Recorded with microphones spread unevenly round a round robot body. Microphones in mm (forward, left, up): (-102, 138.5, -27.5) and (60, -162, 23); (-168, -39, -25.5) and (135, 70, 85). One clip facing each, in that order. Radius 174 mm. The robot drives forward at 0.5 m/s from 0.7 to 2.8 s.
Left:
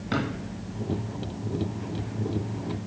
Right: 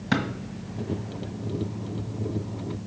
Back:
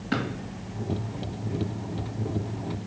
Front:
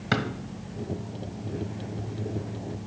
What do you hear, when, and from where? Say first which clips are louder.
0.1 s a drawer: right 2 dB, even; 5° right, 1.4 m